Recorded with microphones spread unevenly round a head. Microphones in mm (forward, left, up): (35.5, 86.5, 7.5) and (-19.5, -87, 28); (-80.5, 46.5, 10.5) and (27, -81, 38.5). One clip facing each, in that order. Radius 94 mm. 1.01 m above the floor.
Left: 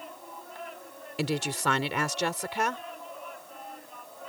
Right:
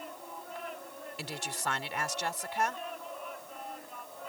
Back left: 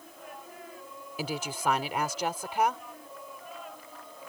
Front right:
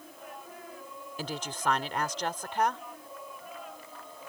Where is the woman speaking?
45° left.